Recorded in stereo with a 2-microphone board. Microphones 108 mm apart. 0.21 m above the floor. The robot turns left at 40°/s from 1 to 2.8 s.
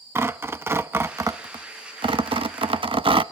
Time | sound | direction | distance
0.1 | tearing paper | 25° right (ahead or behind) | 0.6 m